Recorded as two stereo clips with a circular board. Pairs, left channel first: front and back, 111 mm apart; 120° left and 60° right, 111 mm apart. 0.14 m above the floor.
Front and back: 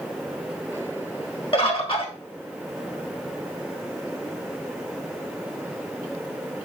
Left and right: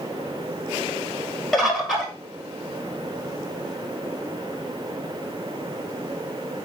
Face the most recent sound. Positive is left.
turn(degrees=30)